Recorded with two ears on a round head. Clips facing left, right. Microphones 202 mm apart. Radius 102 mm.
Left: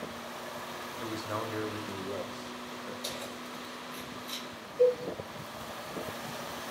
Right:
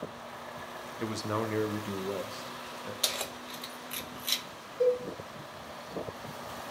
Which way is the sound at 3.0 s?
75° right (ahead or behind).